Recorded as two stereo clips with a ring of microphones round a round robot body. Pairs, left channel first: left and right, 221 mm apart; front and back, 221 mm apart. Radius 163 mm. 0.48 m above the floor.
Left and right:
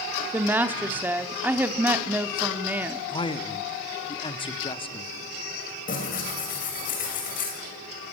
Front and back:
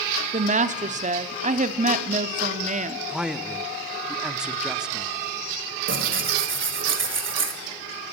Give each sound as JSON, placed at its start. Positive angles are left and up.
{"t": 0.3, "sound": "a woman speaking", "azimuth_deg": -165, "distance_m": 0.8}
{"t": 3.1, "sound": "a man speaking", "azimuth_deg": 100, "distance_m": 0.9}
{"t": 5.9, "sound": "tearing paper", "azimuth_deg": 150, "distance_m": 2.5}